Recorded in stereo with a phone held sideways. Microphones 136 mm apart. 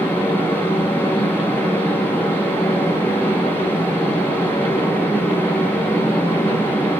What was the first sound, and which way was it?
A fan, 15° left (ahead or behind).